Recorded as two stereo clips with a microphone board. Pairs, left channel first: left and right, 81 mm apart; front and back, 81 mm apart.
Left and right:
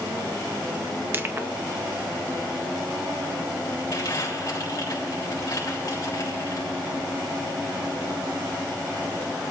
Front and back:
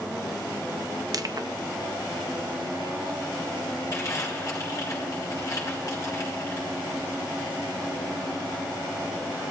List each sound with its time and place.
1.1 s crushing: 150° right, 0.6 m
3.9 s crumpling: 45° left, 3 m